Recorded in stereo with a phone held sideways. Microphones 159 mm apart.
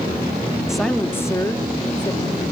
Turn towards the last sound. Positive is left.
turn(degrees=30)  # may be behind; listen again after turning